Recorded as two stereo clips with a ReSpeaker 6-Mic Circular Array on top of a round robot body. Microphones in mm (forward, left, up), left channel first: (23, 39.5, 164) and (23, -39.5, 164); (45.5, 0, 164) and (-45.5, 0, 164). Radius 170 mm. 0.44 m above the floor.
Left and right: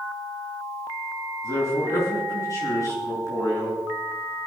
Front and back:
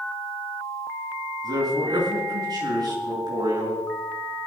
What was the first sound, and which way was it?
A man speaking, 140° left.